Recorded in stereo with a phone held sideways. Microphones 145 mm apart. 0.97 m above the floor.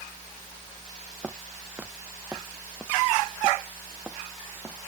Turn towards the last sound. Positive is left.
turn(degrees=-15)  # may be behind; listen again after turning